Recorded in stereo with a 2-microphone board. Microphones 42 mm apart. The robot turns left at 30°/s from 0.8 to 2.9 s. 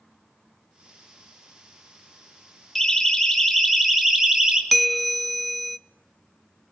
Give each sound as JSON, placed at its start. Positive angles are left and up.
{"t": 2.8, "sound": "a siren", "side_deg": 5, "distance_m": 6.0}
{"t": 4.7, "sound": "a bell", "side_deg": 0, "distance_m": 0.5}